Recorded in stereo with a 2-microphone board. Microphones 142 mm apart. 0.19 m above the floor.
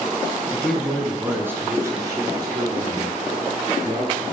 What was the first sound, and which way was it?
A man speaking, 5° left (ahead or behind).